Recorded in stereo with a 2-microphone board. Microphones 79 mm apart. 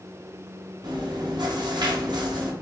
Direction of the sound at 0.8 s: 60° right (ahead or behind).